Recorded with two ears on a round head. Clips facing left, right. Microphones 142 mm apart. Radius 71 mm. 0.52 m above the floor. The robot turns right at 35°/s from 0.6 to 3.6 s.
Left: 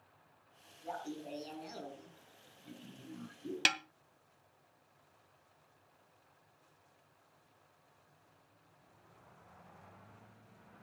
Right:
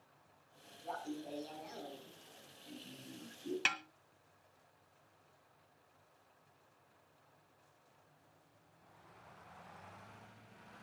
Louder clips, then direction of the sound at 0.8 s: Left 1 dB; 5° left.